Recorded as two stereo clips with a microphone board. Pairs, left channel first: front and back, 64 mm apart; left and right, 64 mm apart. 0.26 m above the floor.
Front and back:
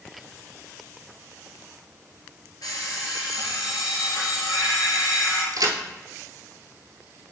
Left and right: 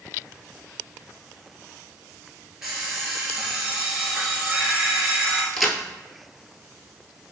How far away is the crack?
About 0.9 m.